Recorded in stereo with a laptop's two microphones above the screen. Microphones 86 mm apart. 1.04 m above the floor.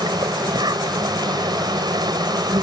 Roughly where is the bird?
No bird in this recording.